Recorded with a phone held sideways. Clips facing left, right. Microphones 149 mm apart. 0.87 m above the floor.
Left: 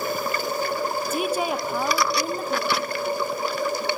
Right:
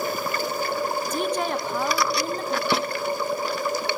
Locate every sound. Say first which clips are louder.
1.1 s a woman speaking: left 2 dB; 5° left (ahead or behind), 1.4 m
2.7 s a snare drum: right 2 dB; 25° right (ahead or behind), 1.0 m